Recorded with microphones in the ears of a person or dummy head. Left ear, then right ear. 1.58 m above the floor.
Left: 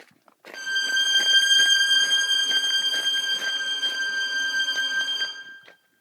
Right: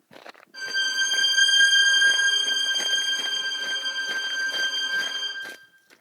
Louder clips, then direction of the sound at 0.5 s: Left 1 dB; 10° left (ahead or behind).